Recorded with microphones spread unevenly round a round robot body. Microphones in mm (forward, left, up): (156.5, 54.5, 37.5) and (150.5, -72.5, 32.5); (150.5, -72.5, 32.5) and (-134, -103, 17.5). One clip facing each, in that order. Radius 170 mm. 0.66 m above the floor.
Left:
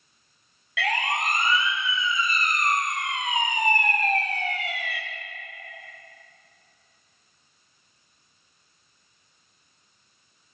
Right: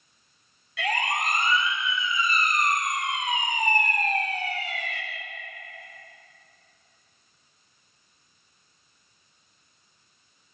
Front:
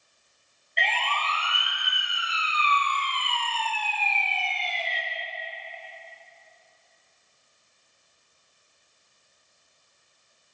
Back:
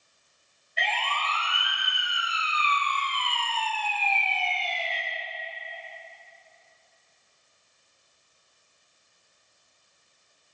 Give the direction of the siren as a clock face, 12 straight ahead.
9 o'clock.